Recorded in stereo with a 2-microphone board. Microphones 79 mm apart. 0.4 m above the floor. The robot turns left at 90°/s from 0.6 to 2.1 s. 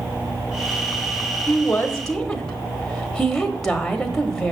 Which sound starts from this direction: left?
A woman speaking, at 1.5 s.